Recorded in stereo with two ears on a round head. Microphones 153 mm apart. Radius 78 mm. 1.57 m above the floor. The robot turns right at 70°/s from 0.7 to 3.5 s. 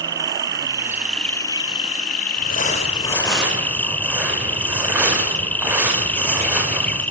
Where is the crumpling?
110° left, 7 m; by 7.0 s 170° right, 7 m.